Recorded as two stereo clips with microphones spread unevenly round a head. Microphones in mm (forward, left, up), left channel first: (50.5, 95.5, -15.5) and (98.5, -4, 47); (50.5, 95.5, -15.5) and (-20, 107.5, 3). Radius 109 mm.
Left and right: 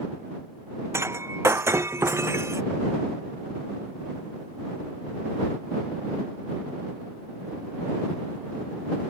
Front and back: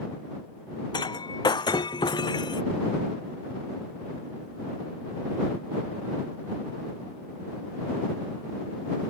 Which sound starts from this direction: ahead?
Breaking glass, at 0.9 s.